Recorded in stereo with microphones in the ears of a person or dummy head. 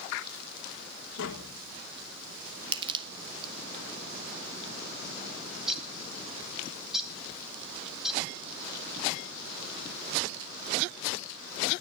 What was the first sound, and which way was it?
Tapping, 70° left (ahead or behind).